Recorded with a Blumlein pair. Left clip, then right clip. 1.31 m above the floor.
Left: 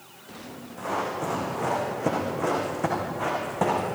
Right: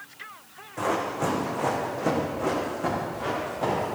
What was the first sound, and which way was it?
Running footsteps, 25° right.